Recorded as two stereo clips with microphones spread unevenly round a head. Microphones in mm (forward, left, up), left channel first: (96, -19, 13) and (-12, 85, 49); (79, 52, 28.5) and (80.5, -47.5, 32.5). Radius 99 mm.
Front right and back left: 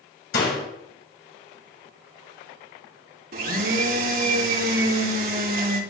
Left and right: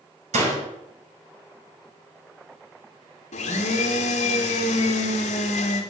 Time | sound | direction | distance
0.3 | a door slam | 90° right | 6.5 m
3.3 | a blender | 115° left | 2.5 m